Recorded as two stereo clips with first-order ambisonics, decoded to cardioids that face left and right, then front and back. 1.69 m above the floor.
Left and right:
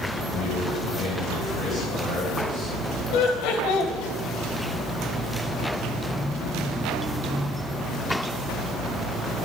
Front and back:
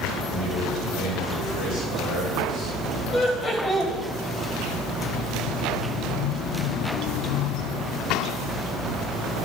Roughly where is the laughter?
Left.